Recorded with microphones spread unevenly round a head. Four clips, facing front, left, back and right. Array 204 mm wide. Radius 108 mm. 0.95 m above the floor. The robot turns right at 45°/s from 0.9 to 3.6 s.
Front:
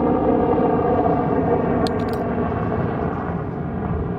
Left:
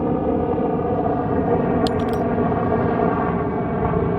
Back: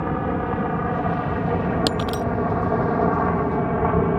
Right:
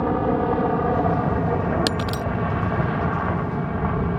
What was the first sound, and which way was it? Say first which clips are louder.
A helicopter: left 1 dB, front 7 dB; 15° left.